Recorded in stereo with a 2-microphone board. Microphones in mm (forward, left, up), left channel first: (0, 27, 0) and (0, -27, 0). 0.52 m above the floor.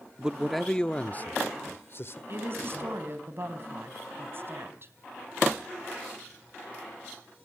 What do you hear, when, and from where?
0.2 s a man speaking: 15° right (ahead or behind), 0.7 m; by 2.2 s 50° left (ahead or behind), 1.4 m
2.3 s a woman speaking: 45° right (ahead or behind), 3.5 m